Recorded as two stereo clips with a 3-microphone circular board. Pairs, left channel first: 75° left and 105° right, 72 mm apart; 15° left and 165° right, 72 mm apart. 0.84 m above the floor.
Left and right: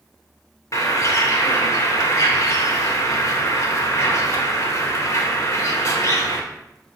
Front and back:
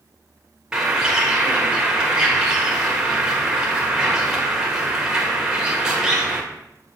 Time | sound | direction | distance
0.7 | a bird | 115° left | 1.4 m